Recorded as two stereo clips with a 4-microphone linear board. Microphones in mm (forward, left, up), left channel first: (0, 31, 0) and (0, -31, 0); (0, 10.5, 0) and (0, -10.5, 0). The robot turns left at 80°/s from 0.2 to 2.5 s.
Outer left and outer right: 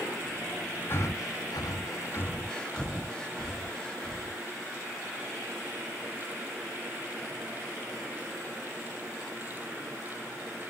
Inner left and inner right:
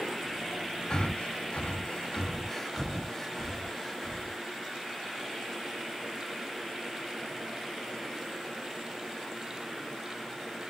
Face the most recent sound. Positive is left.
turn(degrees=15)  # may be behind; listen again after turning